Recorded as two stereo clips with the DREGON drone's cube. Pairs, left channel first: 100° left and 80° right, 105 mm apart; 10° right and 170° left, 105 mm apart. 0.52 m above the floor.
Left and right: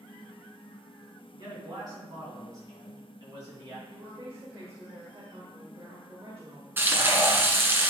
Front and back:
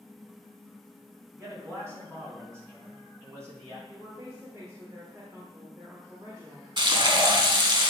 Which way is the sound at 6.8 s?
145° right.